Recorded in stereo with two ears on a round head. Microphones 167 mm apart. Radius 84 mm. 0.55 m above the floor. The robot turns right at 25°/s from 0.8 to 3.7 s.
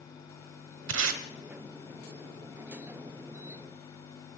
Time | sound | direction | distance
0.9 | tape being pulled | 80° right | 1.2 m